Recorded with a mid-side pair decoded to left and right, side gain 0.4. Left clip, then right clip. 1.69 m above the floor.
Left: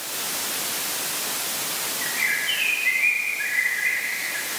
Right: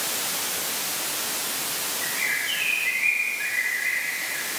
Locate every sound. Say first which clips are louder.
2.0 s a bird: left 3 dB; 15° left, 2.5 m